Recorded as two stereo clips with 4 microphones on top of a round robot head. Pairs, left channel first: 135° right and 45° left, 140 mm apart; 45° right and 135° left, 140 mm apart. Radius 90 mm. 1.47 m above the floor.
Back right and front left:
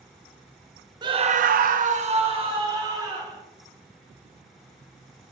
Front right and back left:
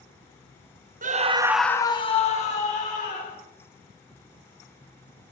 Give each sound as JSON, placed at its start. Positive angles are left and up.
{"t": 1.0, "sound": "a scream", "azimuth_deg": 105, "distance_m": 0.9}